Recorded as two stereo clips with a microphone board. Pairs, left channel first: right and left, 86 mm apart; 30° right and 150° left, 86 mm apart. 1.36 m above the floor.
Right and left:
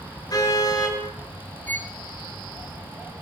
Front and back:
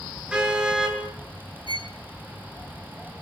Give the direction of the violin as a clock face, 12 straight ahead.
1 o'clock.